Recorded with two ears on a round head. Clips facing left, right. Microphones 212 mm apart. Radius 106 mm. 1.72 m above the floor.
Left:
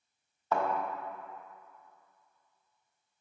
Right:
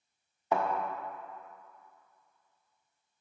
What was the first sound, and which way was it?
A thud, 15° right (ahead or behind).